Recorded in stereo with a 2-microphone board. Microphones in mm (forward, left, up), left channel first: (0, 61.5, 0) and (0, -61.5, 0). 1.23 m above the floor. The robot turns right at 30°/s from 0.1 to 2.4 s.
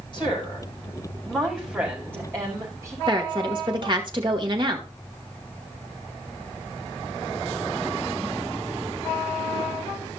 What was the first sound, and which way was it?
A woman speaking, 140° left.